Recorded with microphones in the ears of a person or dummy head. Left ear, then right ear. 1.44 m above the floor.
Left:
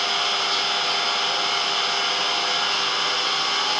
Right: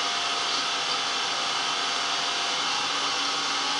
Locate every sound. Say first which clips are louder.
0.0 s an engine running: left 5 dB; 10° left (ahead or behind), 2.5 m